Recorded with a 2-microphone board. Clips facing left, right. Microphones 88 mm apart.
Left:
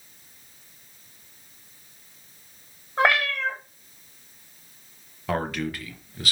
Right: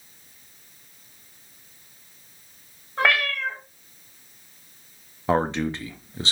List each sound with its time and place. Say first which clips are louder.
3.0 s a cat meowing: left 1 dB; 20° left (ahead or behind), 1.3 m
5.3 s a man speaking: right 5 dB; 25° right (ahead or behind), 0.5 m